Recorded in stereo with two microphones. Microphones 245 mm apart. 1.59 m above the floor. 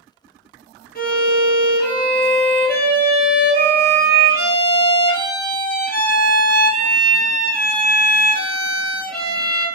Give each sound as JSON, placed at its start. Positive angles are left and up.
{"t": 0.9, "sound": "a violin", "side_deg": 40, "distance_m": 0.7}